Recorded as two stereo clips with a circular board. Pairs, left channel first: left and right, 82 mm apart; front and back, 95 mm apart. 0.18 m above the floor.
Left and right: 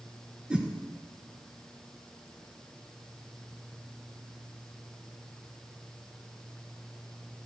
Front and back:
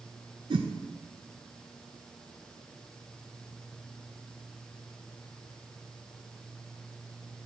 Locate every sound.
0.5 s a whoosh: 165° right, 0.9 m